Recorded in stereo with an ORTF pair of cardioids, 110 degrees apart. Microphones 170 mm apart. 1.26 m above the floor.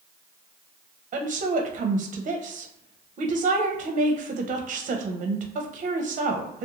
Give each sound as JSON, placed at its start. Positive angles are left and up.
{"t": 1.1, "sound": "a woman speaking", "azimuth_deg": -45, "distance_m": 0.7}